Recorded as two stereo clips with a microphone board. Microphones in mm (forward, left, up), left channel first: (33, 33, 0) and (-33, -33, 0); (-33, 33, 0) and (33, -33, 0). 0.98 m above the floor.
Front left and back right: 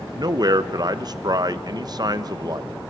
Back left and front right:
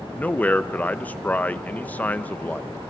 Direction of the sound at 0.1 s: 155° right.